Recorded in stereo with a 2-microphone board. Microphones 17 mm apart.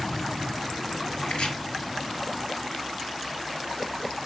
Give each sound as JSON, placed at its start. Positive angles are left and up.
{"t": 1.2, "sound": "chopping", "side_deg": 75, "distance_m": 1.9}